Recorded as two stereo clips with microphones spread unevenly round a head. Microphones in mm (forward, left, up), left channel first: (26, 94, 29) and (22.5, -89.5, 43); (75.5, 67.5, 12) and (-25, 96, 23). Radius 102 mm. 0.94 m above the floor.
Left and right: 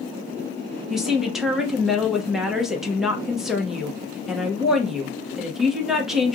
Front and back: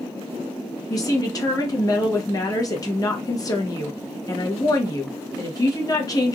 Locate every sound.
0.9 s a woman speaking: straight ahead, 1.1 m